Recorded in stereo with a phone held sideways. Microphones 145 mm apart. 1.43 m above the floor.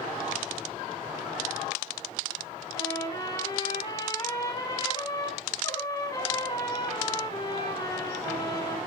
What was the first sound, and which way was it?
A trumpet, 25° left (ahead or behind).